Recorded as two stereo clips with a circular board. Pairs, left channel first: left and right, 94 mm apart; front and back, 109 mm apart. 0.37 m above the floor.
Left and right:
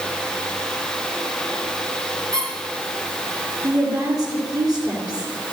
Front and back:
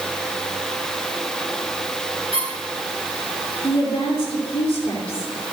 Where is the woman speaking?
35° right, 4.5 m.